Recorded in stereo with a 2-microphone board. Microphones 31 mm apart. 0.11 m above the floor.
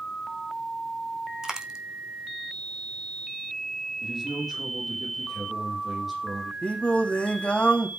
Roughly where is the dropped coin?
Right.